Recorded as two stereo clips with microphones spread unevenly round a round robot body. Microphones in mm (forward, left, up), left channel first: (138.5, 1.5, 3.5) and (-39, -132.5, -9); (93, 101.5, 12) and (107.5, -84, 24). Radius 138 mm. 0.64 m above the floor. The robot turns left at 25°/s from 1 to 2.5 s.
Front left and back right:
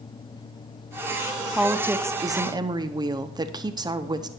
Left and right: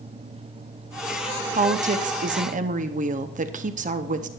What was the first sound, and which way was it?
A woman speaking, 65° right.